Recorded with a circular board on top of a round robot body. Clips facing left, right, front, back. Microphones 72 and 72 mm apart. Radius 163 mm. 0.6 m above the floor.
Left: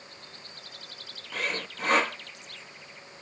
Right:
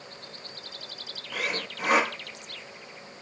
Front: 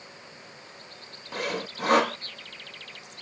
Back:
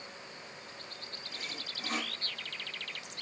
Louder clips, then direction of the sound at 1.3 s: Right 1 dB, front 16 dB; 10° right.